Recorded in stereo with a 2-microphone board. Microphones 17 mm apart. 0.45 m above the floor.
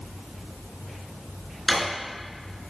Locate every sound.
1.7 s a drawer: 5° left (ahead or behind), 3 m